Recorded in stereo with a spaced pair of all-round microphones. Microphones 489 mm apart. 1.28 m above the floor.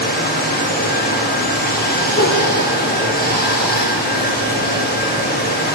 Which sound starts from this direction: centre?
Running water, at 0.0 s.